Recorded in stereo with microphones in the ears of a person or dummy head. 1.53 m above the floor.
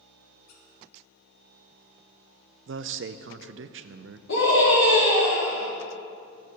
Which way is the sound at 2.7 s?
60° right (ahead or behind).